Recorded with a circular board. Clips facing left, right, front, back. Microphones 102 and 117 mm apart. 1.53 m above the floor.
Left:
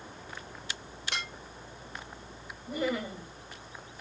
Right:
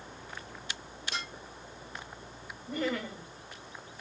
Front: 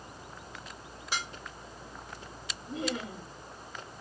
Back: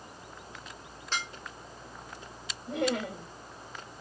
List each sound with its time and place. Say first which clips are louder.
1.1 s dishes clattering: left 1 dB, even; 80° left, 2.0 m
2.7 s laughter: left 1 dB, back 5 dB; 170° left, 2.5 m